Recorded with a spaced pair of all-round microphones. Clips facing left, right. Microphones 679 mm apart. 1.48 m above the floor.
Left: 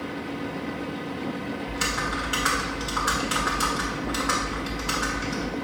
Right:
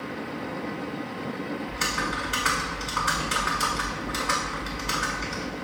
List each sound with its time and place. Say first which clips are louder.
0.0 s a fan: left 2 dB; 60° left (ahead or behind), 0.9 m
1.7 s typing on a keyboard: left 2 dB; 40° left (ahead or behind), 2 m